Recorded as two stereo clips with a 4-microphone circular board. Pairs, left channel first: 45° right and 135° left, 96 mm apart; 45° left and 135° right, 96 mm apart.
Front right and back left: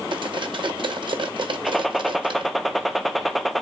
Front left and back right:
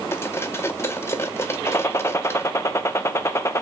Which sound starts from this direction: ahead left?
A gunshot, at 1.6 s.